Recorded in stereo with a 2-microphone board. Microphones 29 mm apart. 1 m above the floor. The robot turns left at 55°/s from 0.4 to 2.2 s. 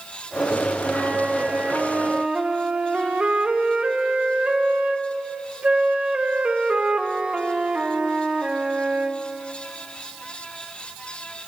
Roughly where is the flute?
Ahead right.